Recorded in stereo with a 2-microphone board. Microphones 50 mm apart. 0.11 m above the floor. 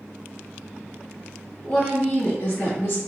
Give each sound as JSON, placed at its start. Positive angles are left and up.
{"t": 1.6, "sound": "a woman speaking", "side_deg": 20, "distance_m": 1.3}